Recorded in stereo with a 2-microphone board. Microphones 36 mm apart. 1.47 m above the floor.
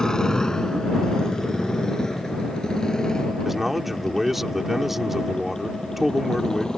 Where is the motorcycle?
20° left (ahead or behind).